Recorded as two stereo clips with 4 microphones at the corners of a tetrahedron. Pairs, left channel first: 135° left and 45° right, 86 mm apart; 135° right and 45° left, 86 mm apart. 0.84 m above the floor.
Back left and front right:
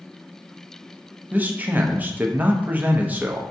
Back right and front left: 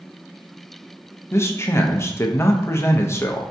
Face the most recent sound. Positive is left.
turn(degrees=-100)